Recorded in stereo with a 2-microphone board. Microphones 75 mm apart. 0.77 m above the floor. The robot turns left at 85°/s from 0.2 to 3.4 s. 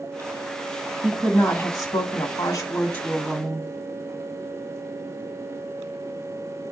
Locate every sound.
1.0 s a woman speaking: straight behind, 1.3 m; by 3.7 s 20° right, 1.3 m